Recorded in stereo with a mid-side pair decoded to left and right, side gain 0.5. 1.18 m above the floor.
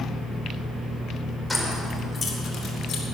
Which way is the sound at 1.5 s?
10° left.